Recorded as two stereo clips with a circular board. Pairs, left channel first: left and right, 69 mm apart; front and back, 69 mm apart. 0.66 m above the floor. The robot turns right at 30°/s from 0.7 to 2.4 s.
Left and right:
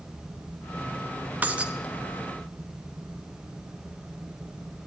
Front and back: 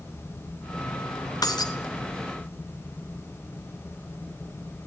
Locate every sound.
1.4 s breaking glass: 25° right, 2.5 m; by 1.7 s 15° right, 2.5 m